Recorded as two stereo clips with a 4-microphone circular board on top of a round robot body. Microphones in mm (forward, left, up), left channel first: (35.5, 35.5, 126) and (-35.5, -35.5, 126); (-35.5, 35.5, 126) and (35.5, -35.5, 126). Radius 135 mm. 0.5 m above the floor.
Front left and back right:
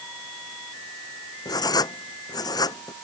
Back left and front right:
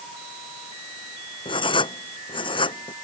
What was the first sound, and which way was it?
Writing, 100° left.